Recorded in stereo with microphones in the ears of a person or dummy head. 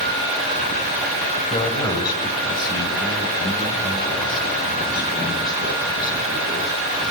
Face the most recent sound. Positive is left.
turn(degrees=25)  # may be behind; listen again after turning